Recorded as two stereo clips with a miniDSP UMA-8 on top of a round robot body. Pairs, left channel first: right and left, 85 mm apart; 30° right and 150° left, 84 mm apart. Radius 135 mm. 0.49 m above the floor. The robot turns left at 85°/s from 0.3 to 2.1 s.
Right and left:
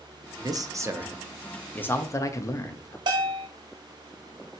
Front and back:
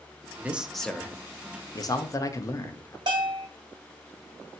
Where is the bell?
120° left, 1.3 m.